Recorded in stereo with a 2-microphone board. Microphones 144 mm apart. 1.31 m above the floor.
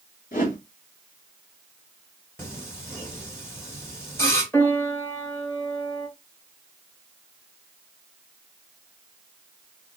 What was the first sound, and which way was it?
A whoosh, 70° left (ahead or behind).